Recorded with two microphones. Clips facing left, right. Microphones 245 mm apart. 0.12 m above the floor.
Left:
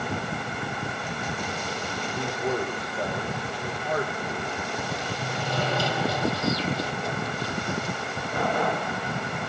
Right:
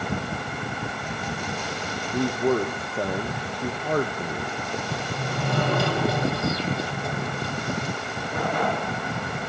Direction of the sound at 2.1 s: 55° right (ahead or behind).